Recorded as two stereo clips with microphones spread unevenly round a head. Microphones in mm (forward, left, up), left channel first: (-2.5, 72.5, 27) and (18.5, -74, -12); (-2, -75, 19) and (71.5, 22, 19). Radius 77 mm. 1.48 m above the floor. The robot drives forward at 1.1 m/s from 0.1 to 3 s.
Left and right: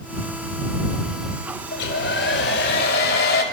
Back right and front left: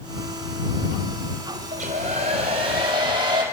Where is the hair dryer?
100° left, 4 m; by 3.4 s 120° left, 4.5 m.